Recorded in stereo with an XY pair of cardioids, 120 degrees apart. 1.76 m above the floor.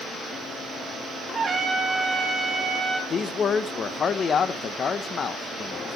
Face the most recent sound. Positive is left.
turn(degrees=40)